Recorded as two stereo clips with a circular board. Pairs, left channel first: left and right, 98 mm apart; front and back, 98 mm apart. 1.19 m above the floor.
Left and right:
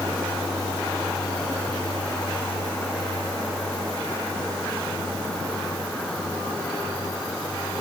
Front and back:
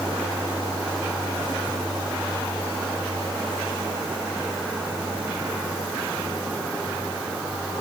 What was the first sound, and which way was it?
Only background noise.